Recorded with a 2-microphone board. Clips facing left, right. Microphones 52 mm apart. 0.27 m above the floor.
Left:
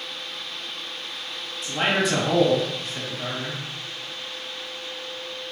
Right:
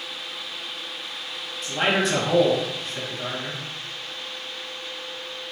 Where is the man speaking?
Centre (ahead or behind), 1.9 m.